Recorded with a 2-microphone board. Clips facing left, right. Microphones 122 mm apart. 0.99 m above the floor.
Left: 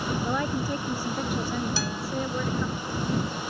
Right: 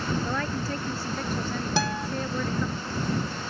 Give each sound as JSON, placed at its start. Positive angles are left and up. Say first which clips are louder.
{"t": 0.2, "sound": "a woman speaking", "louder": "left 2 dB", "side_deg": 15}
{"t": 1.8, "sound": "a guitar", "louder": "right 4 dB", "side_deg": -55}